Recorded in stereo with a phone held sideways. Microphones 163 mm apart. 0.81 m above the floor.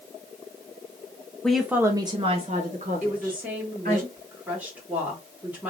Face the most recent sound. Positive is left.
turn(degrees=-10)  # may be behind; listen again after turning